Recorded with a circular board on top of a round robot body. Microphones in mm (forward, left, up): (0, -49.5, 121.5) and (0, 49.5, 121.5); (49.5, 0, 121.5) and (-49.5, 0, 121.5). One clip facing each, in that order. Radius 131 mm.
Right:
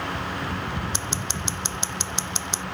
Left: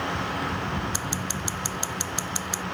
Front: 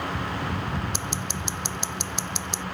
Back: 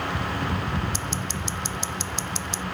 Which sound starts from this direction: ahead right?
Scissors, at 0.9 s.